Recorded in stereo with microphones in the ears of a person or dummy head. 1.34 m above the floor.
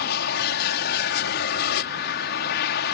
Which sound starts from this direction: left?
An aircraft, at 0.0 s.